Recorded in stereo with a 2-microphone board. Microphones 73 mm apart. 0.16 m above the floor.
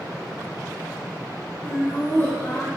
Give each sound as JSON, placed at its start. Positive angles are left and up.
{"t": 1.6, "sound": "laughter", "side_deg": 35, "distance_m": 2.5}